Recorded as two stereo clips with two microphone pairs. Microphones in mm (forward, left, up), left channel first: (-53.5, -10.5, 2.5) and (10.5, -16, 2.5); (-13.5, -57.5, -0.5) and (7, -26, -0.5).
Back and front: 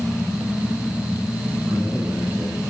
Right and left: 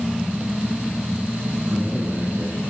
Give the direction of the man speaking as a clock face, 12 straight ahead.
10 o'clock.